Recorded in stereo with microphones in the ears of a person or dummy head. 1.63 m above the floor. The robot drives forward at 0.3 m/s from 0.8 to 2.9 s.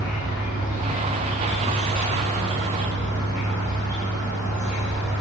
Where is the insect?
40° left (ahead or behind), 2.0 m.